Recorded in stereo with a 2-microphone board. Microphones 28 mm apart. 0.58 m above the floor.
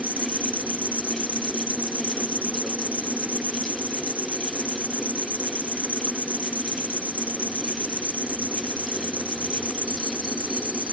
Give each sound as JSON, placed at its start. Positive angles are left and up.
{"t": 0.0, "sound": "an insect", "side_deg": -80}